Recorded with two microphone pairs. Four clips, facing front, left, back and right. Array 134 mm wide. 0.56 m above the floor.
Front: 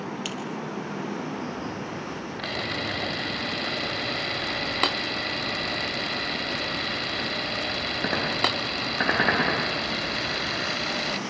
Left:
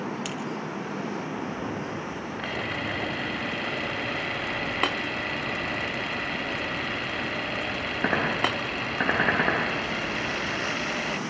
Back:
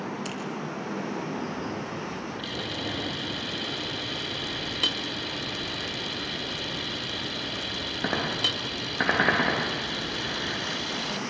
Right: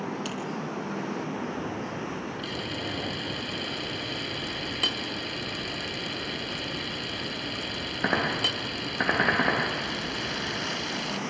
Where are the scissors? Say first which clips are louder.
Even, front 1 dB; 70° left, 4.5 m.